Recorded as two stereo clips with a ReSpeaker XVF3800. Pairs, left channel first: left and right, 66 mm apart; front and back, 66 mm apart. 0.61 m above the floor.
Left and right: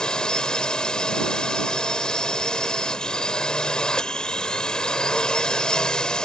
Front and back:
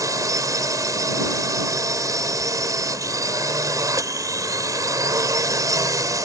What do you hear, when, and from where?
0.0 s a drone: 165° left